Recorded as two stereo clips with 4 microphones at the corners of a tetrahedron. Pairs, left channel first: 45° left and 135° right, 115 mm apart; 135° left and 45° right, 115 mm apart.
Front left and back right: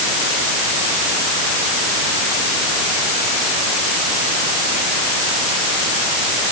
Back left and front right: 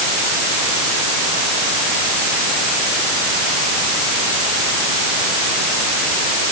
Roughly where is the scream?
No scream in this recording.